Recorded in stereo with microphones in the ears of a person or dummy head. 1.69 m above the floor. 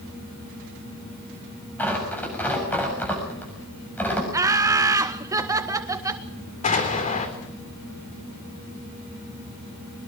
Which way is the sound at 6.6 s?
40° left (ahead or behind).